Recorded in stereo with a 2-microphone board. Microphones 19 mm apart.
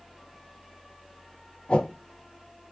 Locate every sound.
1.7 s a whoosh: 70° left (ahead or behind), 0.9 m